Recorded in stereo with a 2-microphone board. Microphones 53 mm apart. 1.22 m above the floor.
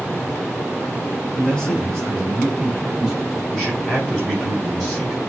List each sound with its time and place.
1.4 s a man speaking: 15° left (ahead or behind), 2.5 m; by 3.4 s 5° right (ahead or behind), 3.5 m
3.5 s a man speaking: centre (ahead or behind), 3.5 m